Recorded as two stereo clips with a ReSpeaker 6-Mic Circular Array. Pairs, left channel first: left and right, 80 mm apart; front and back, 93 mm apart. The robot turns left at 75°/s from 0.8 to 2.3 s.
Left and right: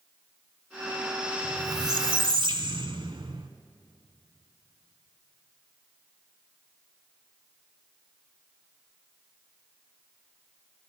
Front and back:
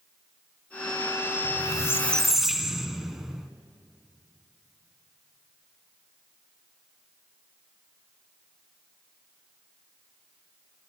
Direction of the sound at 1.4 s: 30° right.